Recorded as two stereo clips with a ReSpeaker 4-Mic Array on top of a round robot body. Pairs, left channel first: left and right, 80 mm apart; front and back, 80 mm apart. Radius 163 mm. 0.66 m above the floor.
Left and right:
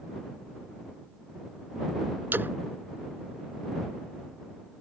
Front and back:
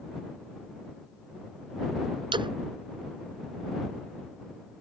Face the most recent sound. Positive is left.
turn(degrees=-160)